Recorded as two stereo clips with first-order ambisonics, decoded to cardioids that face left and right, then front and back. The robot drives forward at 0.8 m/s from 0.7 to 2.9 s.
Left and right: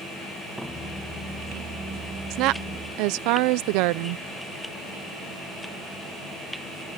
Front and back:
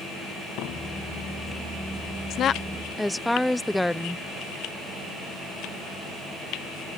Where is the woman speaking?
50° right; by 4.2 s 85° right.